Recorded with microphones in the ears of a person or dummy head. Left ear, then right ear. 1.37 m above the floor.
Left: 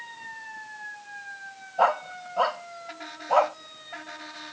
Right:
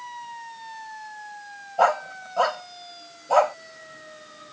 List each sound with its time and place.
1.8 s a dog barking: 10° right (ahead or behind)